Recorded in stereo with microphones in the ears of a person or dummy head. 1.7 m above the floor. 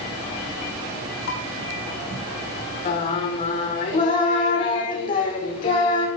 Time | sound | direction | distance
1.3 | dishes clattering | 65° left (ahead or behind) | 4.5 m
2.9 | singing | 45° left (ahead or behind) | 2 m